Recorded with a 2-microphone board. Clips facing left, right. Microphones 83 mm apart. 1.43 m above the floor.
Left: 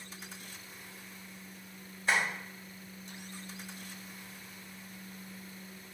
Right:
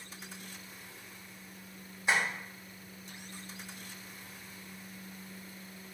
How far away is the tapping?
About 1.4 m.